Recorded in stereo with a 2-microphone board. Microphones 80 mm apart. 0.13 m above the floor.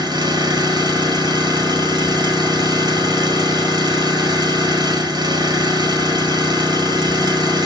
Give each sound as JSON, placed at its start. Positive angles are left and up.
{"t": 0.0, "sound": "an engine running", "side_deg": -60, "distance_m": 1.5}